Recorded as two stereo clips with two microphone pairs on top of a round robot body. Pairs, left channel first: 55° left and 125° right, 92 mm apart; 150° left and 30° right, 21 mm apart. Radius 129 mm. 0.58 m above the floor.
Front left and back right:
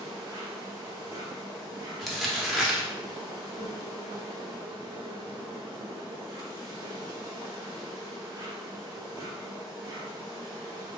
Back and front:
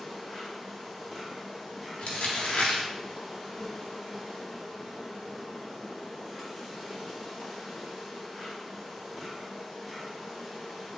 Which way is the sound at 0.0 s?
125° right.